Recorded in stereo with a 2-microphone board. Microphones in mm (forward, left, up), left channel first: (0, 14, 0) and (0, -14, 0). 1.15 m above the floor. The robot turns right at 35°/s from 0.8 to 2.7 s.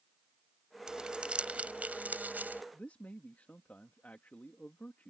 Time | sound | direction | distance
0.9 | crumpling | 20° right (ahead or behind) | ?
2.7 | a man speaking | 75° left (ahead or behind) | ?